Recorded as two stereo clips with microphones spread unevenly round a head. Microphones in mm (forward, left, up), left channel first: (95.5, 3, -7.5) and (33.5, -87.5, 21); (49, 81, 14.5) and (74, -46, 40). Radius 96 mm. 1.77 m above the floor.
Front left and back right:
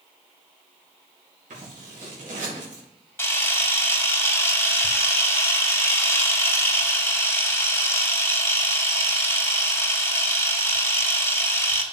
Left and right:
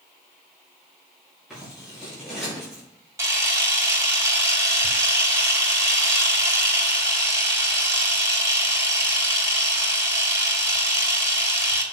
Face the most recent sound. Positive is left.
turn(degrees=-20)